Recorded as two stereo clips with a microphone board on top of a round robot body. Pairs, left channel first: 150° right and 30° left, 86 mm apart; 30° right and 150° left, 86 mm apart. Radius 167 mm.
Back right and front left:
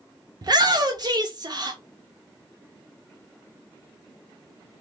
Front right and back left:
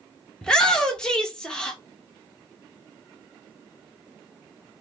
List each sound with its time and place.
0.4 s a shout: 50° left, 1.0 m